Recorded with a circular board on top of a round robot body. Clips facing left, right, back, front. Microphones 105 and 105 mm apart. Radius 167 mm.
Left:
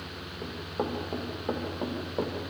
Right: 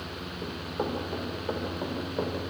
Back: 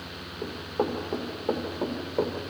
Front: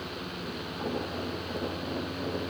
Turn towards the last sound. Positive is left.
turn(degrees=150)